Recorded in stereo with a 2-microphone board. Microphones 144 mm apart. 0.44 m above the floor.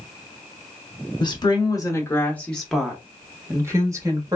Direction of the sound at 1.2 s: 35° left (ahead or behind).